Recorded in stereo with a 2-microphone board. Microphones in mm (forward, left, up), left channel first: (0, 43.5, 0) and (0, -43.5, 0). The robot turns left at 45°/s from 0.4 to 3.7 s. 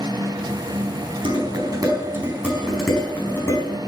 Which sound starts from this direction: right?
Dishes clattering, at 1.2 s.